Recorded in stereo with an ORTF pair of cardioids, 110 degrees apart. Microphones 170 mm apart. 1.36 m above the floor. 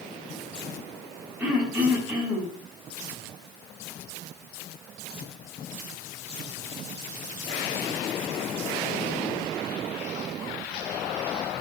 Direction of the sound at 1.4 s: 10° right.